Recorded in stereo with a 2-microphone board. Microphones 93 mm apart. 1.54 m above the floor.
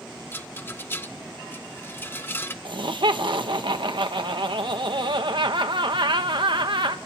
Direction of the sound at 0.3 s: 25° left (ahead or behind).